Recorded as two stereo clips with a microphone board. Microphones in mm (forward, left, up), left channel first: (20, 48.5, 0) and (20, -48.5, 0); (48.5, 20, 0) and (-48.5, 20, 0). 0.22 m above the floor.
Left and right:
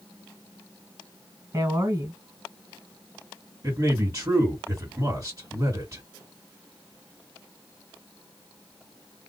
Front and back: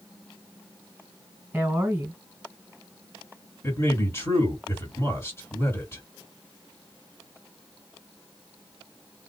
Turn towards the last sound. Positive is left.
turn(degrees=-45)